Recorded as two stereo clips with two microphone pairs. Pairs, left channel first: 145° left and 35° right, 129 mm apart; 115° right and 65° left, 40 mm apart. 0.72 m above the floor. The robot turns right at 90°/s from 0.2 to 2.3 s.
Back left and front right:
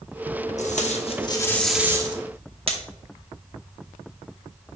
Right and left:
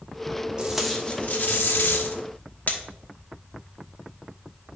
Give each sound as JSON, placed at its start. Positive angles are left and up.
{"t": 0.6, "sound": "tape being pulled", "azimuth_deg": 135, "distance_m": 1.0}